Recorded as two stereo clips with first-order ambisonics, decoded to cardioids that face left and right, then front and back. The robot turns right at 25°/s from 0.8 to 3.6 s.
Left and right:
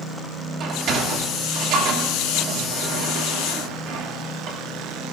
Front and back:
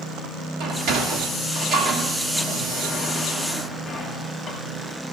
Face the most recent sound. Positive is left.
turn(degrees=-70)